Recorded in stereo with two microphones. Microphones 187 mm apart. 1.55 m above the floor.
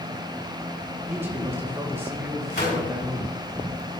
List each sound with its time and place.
1.1 s a man speaking: 10° right (ahead or behind), 1.8 m
2.5 s a gunshot: 60° left (ahead or behind), 4 m